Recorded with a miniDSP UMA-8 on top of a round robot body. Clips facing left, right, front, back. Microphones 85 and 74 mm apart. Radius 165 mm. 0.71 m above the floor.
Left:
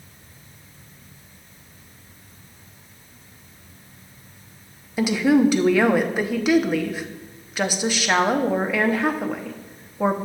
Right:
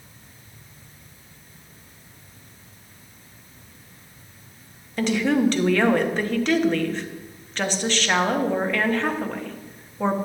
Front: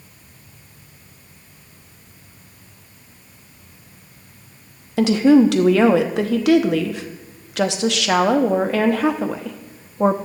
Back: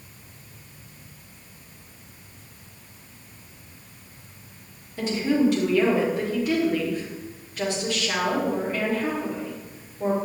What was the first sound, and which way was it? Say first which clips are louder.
A woman speaking: left 3 dB, front 10 dB; 10° left.